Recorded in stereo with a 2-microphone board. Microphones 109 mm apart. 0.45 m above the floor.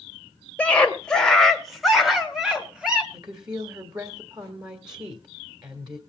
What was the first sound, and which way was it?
A scream, 10° left (ahead or behind).